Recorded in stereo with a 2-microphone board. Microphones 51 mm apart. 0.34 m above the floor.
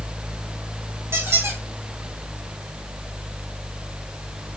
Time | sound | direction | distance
1.1 | a squeak | 65° right (ahead or behind) | 1.6 m